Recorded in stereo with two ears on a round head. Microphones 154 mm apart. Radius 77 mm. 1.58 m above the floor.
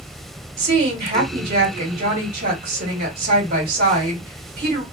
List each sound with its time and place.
0.6 s a woman speaking: 60° right (ahead or behind), 1.8 m